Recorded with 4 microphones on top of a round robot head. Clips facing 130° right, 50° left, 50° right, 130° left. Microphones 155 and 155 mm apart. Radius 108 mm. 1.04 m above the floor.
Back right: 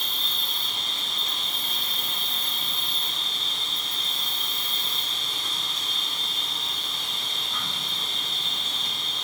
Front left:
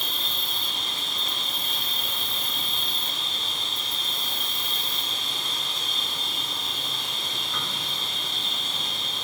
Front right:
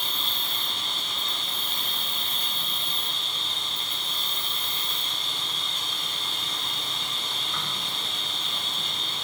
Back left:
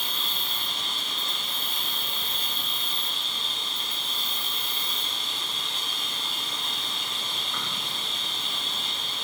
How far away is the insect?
About 3.5 m.